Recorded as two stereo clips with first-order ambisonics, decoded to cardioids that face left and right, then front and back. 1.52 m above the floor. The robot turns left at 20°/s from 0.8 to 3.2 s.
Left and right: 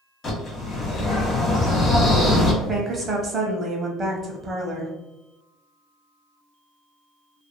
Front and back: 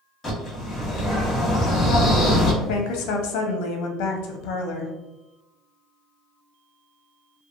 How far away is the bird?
About 1.0 m.